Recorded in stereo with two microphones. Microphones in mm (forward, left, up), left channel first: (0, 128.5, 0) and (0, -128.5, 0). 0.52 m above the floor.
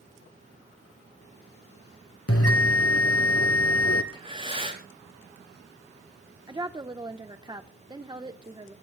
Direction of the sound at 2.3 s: 65° left (ahead or behind).